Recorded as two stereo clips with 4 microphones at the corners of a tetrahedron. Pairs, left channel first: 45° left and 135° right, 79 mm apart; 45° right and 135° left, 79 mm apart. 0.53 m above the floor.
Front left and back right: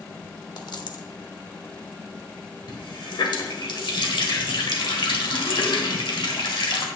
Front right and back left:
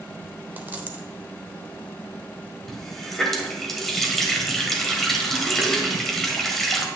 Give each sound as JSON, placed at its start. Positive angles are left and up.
{"t": 0.6, "sound": "a dropped coin", "azimuth_deg": 70, "distance_m": 0.8}
{"t": 2.7, "sound": "a running tap", "azimuth_deg": 40, "distance_m": 1.5}